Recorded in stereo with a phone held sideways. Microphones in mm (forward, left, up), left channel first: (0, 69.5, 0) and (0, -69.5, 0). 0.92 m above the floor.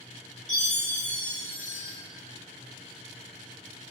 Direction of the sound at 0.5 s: 60° left (ahead or behind).